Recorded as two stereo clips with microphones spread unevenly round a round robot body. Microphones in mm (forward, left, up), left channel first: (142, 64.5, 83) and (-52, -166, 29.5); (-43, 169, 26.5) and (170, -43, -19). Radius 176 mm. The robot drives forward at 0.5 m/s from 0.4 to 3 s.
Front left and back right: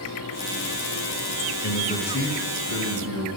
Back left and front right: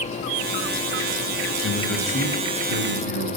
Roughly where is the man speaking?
Behind left.